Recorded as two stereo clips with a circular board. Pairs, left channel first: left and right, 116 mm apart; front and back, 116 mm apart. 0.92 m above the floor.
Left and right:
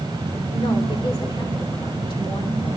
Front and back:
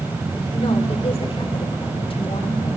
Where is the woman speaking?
40° left, 3 m.